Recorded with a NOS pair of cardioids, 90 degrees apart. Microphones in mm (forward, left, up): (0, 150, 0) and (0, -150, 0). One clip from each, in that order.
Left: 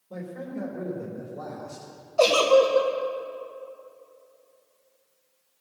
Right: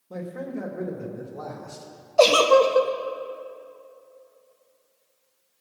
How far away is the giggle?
About 1.0 m.